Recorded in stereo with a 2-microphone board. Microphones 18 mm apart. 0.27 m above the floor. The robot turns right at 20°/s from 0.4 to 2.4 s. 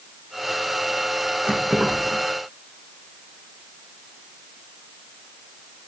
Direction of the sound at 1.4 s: 70° right (ahead or behind).